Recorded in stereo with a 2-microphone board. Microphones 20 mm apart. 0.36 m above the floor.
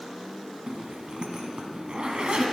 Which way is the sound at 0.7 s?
60° right (ahead or behind).